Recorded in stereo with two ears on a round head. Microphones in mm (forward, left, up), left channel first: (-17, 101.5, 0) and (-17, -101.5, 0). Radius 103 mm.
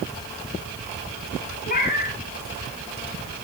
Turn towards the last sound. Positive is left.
turn(degrees=35)  # may be behind; listen again after turning